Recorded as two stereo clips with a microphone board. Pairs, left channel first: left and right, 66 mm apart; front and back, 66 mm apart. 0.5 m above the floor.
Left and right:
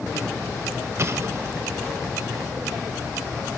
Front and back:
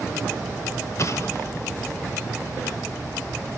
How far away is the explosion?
About 0.7 m.